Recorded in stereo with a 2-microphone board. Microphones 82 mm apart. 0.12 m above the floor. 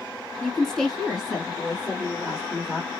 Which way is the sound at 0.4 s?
10° left (ahead or behind).